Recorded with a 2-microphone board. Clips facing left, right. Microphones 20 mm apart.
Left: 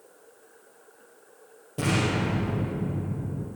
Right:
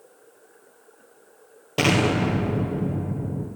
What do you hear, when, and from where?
1.8 s an explosion: 80° right, 3 m